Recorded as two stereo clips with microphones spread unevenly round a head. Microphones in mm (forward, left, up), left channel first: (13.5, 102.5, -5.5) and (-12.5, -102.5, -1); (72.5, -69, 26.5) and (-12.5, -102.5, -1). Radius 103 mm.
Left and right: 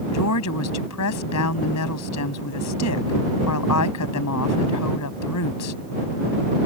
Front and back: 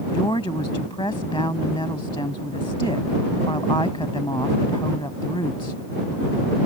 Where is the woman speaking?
90° left.